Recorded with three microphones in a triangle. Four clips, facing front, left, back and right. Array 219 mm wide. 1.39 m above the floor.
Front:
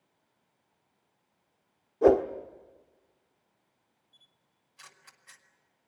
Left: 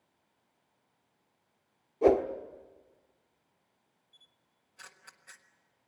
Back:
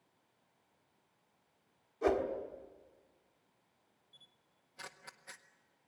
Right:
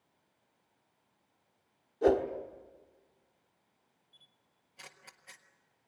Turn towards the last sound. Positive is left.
turn(degrees=-160)